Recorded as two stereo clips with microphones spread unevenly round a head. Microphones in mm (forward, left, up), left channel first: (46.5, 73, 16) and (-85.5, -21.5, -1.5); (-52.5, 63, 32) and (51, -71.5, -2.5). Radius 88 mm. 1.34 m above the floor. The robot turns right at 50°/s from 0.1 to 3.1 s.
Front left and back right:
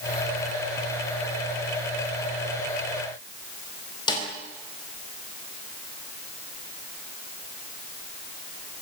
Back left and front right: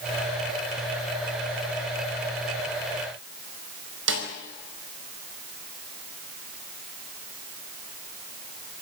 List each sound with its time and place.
4.1 s a snare drum: 30° right, 5 m